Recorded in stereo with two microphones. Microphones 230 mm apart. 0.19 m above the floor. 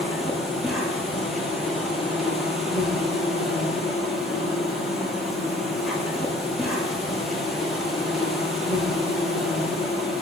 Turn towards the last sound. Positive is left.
turn(degrees=0)  # may be behind; listen again after turning